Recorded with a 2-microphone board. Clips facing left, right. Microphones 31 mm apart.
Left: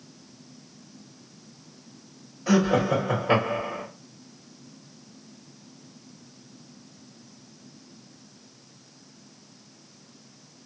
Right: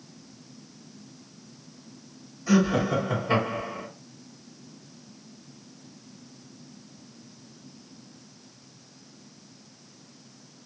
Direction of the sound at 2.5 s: 65° left (ahead or behind).